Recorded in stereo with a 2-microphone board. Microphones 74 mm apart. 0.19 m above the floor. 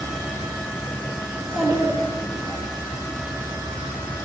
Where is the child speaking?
Centre (ahead or behind), 2 m.